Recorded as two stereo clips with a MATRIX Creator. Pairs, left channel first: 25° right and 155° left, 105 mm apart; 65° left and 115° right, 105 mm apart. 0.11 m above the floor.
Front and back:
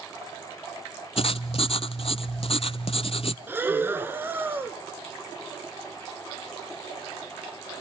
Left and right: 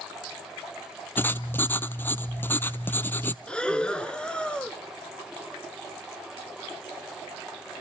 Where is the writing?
5° right, 0.7 m.